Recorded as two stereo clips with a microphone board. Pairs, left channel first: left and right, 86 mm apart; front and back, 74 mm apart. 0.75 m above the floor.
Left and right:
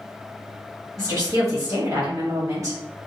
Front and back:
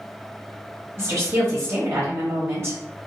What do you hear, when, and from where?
1.0 s a woman speaking: 135° right, 1.1 m